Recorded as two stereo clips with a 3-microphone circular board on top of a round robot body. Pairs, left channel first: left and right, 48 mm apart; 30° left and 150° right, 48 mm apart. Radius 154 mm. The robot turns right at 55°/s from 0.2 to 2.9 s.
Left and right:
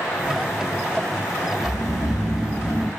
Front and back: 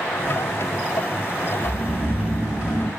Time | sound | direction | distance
1.6 | snoring | 120° left | 2.5 m